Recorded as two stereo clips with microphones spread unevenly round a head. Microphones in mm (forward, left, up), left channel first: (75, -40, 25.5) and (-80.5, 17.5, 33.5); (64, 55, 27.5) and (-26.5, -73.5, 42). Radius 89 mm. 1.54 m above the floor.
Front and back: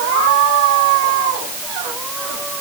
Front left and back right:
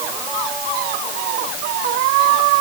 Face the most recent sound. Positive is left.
No sound to turn to.